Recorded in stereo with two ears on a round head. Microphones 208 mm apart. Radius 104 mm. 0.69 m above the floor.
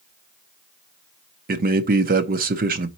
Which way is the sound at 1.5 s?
40° right (ahead or behind).